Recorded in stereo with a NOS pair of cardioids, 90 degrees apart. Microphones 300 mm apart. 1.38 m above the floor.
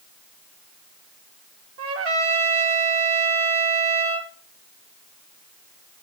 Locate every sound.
1.8 s a trumpet: 50° right, 2 m